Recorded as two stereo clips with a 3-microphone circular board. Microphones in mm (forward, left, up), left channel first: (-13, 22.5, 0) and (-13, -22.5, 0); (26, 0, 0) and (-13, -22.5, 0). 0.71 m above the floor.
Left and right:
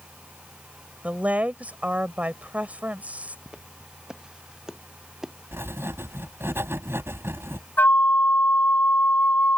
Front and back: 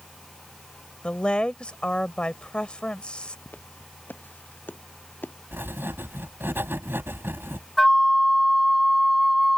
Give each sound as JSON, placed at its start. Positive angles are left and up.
{"t": 1.0, "sound": "a woman speaking", "azimuth_deg": -35}
{"t": 3.5, "sound": "footsteps", "azimuth_deg": -20}
{"t": 5.5, "sound": "writing", "azimuth_deg": -110}
{"t": 7.8, "sound": "a flute", "azimuth_deg": 120}